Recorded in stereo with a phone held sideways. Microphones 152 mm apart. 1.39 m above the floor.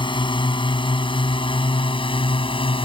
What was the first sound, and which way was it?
A drone, 30° left (ahead or behind).